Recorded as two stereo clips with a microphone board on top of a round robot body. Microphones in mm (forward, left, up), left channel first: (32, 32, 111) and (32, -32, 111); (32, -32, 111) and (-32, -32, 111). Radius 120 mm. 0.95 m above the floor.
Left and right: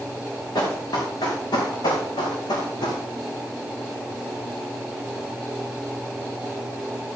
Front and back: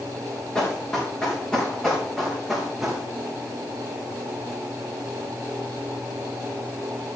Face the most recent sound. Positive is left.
turn(degrees=95)